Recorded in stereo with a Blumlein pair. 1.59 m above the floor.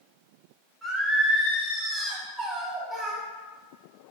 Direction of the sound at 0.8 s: 10° right.